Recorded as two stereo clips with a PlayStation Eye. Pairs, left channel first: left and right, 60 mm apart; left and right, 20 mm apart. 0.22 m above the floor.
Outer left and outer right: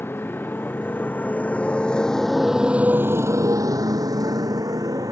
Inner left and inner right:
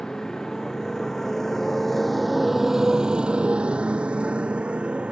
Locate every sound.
0.0 s a motorcycle: 35° left (ahead or behind); by 5.1 s 75° right (ahead or behind)